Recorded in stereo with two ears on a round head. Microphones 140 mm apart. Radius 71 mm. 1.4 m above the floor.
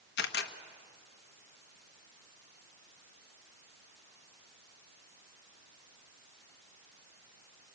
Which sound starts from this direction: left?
A camera shutter, at 0.2 s.